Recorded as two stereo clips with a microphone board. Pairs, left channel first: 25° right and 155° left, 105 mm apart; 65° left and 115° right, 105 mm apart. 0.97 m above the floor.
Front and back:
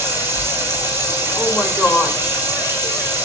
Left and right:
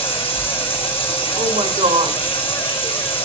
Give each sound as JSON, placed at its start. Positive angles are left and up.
{"t": 0.0, "sound": "running water", "azimuth_deg": 90, "distance_m": 5.5}
{"t": 1.4, "sound": "a woman speaking", "azimuth_deg": -110, "distance_m": 3.0}